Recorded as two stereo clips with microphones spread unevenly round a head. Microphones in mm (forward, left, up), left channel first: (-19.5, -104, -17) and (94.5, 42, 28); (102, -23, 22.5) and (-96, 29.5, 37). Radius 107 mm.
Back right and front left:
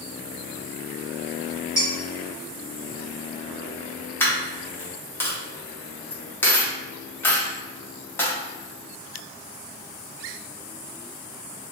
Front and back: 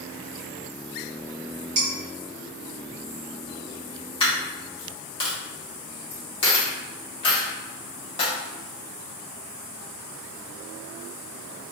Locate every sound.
1.8 s dishes clattering: 130° left, 1.7 m
4.2 s a dropped coin: 30° right, 1.0 m